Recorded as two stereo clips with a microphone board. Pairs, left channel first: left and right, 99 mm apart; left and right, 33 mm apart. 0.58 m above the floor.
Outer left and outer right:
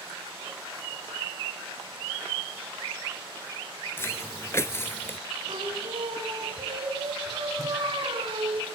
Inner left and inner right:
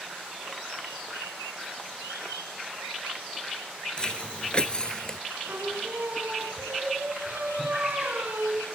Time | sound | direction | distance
4.0 | footsteps | 25° left (ahead or behind) | 0.6 m
5.5 | singing | 60° right (ahead or behind) | 3.5 m